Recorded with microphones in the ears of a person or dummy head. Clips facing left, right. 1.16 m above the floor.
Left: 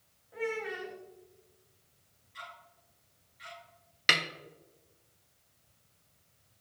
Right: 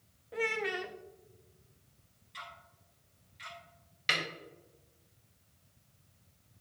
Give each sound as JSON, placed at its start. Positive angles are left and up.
{"t": 0.3, "sound": "a child speaking", "side_deg": -55, "distance_m": 0.7}
{"t": 2.3, "sound": "ticking", "side_deg": -55, "distance_m": 2.5}
{"t": 4.1, "sound": "a snare drum", "side_deg": 65, "distance_m": 0.9}